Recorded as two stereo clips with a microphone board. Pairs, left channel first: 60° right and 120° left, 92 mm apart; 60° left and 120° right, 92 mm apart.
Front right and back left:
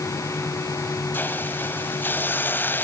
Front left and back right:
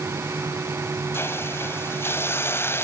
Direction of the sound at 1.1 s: 5° left.